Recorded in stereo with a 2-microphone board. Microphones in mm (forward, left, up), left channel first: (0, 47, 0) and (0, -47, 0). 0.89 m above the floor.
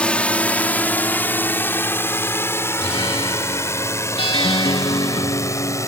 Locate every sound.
0.0 s a drone: 10° left (ahead or behind); by 5.9 s 35° left (ahead or behind)
2.8 s a guitar: 65° left (ahead or behind)